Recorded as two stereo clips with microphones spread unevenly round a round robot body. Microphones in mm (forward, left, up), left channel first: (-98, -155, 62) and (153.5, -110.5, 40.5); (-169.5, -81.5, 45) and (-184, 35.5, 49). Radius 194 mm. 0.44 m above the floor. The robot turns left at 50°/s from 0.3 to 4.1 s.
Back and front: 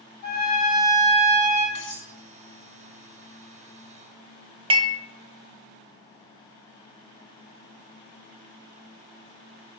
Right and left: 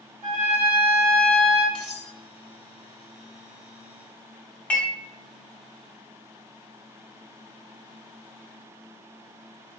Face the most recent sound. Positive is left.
turn(degrees=-20)